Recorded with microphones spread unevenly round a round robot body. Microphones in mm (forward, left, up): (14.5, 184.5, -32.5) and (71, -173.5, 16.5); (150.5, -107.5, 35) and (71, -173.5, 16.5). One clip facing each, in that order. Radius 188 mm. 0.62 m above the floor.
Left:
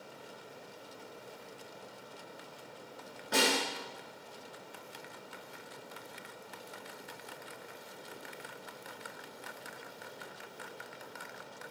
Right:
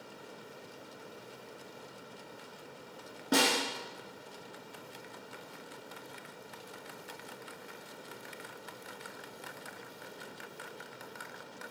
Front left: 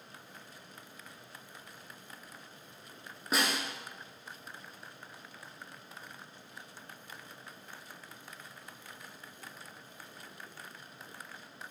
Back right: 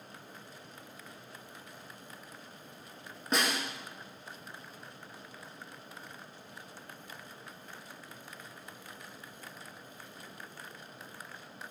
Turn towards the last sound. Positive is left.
turn(degrees=-45)